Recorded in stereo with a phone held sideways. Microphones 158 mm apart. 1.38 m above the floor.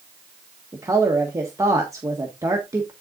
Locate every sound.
0.7 s a woman speaking: 20° right (ahead or behind), 1.5 m